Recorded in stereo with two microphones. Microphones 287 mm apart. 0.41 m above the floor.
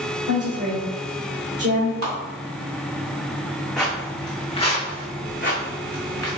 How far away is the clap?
About 2 m.